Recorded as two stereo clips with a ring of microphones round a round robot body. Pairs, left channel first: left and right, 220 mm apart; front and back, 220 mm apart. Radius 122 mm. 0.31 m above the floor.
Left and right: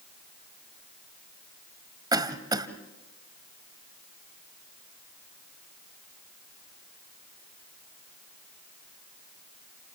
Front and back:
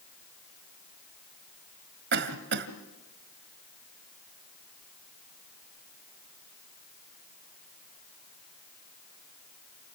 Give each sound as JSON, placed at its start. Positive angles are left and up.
{"t": 2.1, "sound": "a cough", "azimuth_deg": -160, "distance_m": 1.5}